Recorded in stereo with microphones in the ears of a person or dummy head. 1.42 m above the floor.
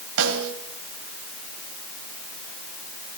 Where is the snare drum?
75° right (ahead or behind), 4.5 m.